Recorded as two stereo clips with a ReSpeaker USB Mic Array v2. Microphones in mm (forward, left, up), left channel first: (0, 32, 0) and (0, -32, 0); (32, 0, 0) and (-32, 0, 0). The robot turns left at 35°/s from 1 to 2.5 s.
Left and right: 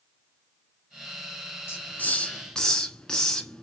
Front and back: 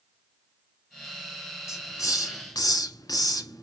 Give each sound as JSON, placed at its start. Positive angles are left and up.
{"t": 1.7, "sound": "a hiss", "azimuth_deg": 40, "distance_m": 1.1}